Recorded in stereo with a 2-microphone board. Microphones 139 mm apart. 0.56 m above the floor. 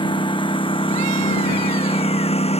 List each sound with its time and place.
0.0 s a lawn mower: 35° left (ahead or behind); by 2.6 s 50° left (ahead or behind)